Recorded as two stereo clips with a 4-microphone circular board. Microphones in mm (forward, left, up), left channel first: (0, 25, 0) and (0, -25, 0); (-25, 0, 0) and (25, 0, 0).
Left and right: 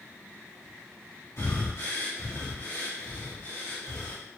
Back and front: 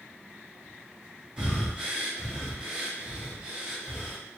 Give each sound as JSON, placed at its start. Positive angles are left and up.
{"t": 1.4, "sound": "breathing", "azimuth_deg": 70, "distance_m": 1.9}